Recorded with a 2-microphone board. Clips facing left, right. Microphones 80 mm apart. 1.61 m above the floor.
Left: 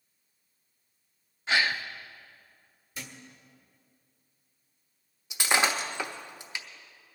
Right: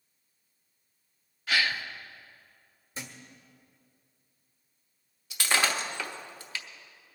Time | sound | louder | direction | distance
1.5 | a gasp | left 2 dB | 25° left (ahead or behind) | 0.7 m
3.0 | a thud | right 1 dB | 30° right (ahead or behind) | 1.4 m
5.3 | breaking glass | left 2 dB | 20° left (ahead or behind) | 1.0 m